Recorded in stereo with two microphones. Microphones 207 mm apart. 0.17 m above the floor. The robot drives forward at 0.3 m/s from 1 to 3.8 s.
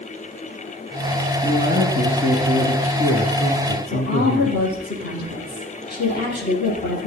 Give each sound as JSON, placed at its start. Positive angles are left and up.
{"t": 1.4, "sound": "a man speaking", "side_deg": 45, "distance_m": 2.0}
{"t": 3.9, "sound": "a woman speaking", "side_deg": 50, "distance_m": 6.0}